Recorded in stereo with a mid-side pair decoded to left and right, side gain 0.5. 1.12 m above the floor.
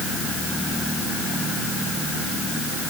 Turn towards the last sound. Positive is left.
No sound to turn to.